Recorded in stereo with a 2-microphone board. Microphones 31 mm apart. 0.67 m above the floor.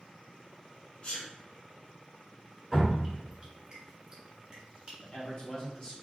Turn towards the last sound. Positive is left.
turn(degrees=35)  # may be behind; listen again after turning